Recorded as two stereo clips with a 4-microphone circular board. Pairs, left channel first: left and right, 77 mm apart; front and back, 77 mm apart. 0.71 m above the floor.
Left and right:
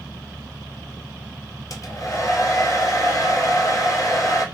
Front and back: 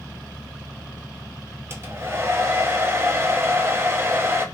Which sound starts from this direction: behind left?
A hair dryer, at 1.7 s.